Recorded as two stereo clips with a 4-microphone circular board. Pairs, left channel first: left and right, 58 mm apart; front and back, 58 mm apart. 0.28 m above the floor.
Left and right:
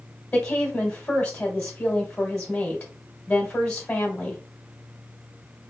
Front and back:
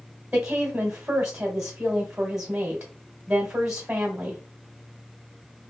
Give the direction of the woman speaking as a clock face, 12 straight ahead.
8 o'clock.